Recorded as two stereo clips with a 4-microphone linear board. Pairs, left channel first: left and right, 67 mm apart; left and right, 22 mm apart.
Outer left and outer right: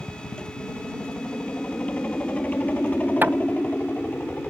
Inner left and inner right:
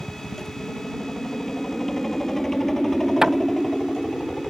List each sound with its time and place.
0.0 s a helicopter: 20° left (ahead or behind)
3.2 s hammering: 30° right (ahead or behind)